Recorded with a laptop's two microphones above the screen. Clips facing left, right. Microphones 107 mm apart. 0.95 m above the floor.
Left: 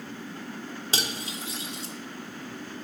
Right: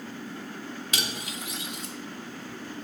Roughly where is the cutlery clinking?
Left.